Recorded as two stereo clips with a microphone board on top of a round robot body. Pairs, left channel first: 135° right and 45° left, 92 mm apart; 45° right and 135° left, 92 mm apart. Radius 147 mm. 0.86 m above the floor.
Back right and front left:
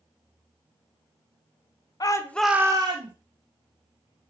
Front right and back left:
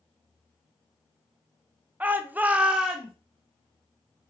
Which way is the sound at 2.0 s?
160° right.